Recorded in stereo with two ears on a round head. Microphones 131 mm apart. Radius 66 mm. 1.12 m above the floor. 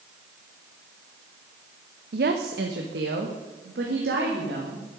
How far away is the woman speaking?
About 0.9 m.